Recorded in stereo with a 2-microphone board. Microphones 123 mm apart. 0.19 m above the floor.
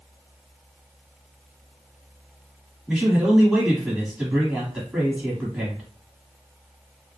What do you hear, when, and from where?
2.9 s a man speaking: 10° right (ahead or behind), 1.4 m